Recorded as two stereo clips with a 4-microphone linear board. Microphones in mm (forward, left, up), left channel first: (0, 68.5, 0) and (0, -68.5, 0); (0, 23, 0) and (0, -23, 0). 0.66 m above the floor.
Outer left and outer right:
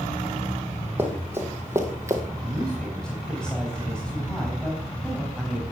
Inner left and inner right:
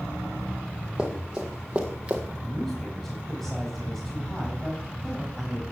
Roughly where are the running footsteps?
Centre.